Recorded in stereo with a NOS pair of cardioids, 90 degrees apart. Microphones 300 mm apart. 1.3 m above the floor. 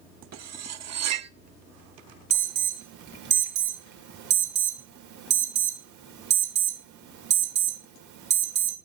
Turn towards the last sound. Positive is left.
turn(degrees=-65)